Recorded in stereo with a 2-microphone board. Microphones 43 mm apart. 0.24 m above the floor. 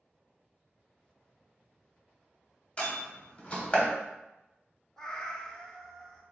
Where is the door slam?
30° left (ahead or behind), 0.9 m.